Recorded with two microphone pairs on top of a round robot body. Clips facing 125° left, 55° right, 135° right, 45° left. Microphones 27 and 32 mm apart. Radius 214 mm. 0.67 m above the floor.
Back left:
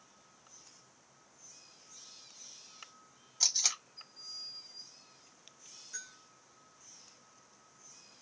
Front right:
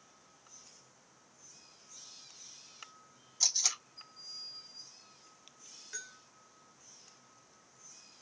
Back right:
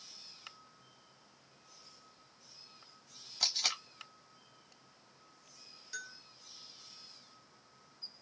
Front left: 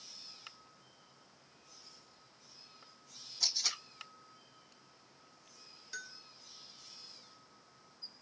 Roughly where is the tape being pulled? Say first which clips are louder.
Back left 1 dB, back right 2 dB; behind right.